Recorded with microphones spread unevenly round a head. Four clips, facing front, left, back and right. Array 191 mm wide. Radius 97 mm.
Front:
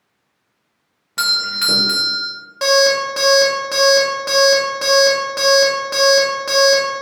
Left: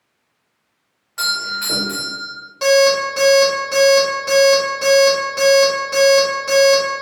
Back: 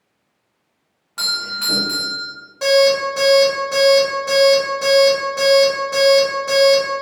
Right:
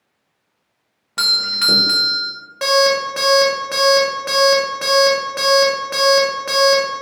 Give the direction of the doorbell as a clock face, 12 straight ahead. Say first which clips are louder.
Left 1 dB, front 5 dB; 2 o'clock.